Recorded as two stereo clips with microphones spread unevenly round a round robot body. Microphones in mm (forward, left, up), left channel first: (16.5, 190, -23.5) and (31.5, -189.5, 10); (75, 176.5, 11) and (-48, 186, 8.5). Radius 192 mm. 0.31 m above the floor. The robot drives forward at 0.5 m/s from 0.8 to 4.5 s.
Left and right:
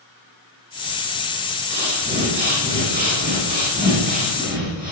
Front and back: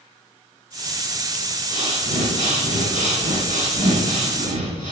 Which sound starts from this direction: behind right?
Breathing, at 1.7 s.